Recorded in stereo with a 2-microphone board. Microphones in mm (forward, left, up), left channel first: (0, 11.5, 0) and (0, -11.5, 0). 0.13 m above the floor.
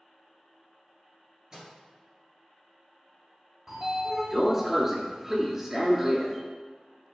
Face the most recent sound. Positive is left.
turn(degrees=-15)  # may be behind; listen again after turning